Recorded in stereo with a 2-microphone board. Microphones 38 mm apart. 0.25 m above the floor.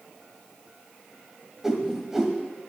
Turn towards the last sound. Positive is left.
turn(degrees=-10)  # may be behind; listen again after turning